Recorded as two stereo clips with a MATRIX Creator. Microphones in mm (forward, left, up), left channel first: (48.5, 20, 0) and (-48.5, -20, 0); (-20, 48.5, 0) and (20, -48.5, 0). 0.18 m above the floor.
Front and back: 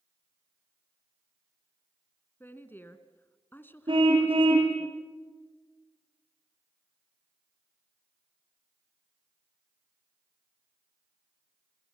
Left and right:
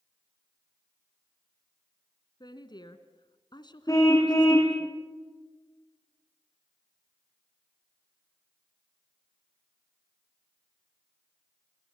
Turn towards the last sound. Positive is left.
turn(degrees=170)